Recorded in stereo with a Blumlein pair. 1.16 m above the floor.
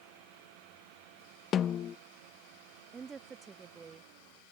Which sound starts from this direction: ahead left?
A snare drum, at 1.5 s.